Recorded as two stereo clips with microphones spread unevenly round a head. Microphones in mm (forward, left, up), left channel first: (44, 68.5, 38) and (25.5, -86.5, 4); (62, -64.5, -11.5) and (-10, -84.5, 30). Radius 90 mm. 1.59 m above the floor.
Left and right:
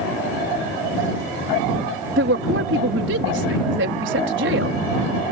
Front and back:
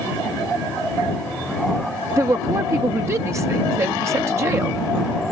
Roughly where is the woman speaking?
Behind right.